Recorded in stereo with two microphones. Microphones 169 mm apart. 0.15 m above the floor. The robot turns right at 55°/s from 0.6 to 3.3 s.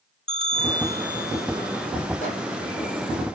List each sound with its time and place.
0.3 s a bell: 40° right, 0.8 m; by 1.9 s 30° left, 0.8 m
2.2 s a microwave: 50° left (ahead or behind), 3.5 m; by 2.4 s 40° left (ahead or behind), 3.5 m